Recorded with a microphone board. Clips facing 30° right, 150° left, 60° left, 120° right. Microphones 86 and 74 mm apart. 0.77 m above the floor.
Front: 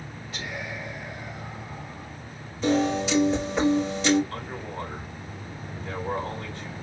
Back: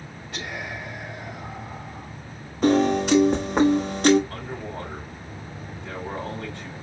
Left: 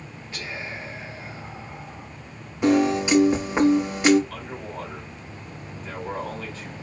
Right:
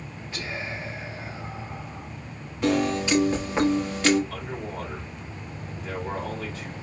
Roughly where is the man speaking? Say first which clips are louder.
Back 1 dB, right 1 dB; behind.